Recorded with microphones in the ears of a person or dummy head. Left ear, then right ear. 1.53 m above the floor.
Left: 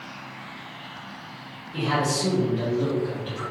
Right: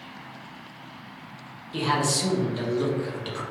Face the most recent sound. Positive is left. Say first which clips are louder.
# even
turn(degrees=-60)  # may be behind; listen again after turning